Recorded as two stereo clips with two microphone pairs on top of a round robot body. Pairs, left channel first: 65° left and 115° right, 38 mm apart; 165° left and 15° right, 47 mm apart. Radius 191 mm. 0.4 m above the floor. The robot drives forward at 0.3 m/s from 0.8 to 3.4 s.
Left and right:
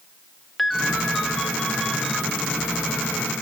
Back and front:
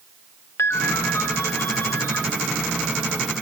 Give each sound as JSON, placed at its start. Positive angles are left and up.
{"t": 0.6, "sound": "a ringtone", "azimuth_deg": 150, "distance_m": 1.7}